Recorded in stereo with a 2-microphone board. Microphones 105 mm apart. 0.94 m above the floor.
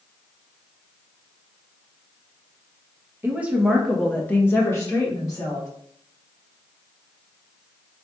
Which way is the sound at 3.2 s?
20° right (ahead or behind).